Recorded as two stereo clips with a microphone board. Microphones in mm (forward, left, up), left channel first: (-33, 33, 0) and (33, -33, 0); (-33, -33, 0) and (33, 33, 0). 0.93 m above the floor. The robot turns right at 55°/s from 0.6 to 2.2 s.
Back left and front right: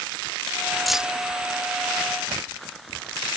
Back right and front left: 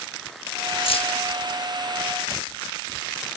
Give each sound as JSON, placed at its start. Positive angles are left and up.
{"t": 0.9, "sound": "keys jangling", "azimuth_deg": -135}